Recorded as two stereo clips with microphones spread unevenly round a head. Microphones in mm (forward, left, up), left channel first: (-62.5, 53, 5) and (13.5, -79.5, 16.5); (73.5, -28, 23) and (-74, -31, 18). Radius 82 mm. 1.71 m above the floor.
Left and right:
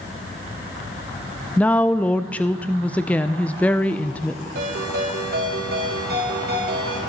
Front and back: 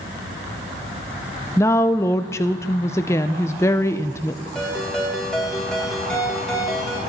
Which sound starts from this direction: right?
A ringtone, at 4.5 s.